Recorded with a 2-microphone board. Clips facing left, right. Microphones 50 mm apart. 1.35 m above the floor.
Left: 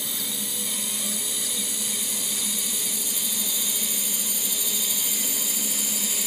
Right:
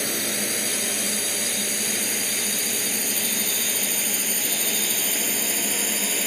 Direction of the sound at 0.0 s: 60° right (ahead or behind).